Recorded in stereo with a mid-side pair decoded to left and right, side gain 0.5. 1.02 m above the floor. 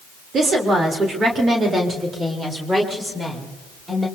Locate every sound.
0.3 s a woman speaking: 50° right, 3.5 m; by 4.1 s 15° right, 4.5 m